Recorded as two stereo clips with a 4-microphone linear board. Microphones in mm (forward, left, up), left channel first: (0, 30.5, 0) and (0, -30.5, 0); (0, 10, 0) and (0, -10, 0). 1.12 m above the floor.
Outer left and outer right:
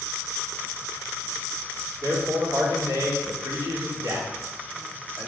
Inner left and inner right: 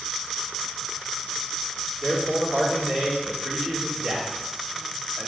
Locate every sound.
2.0 s a man speaking: 65° right (ahead or behind), 3.5 m